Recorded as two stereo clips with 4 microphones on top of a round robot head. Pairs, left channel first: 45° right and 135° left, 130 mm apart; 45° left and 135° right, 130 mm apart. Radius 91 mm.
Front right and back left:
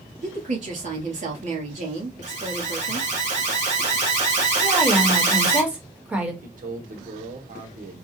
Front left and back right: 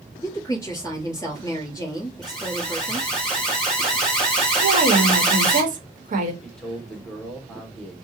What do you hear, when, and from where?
0.2 s a woman speaking: 115° left, 2.5 m
2.2 s an alarm: 135° left, 2.5 m
4.6 s a woman speaking: 150° right, 1.3 m
6.4 s a man speaking: 135° left, 1.2 m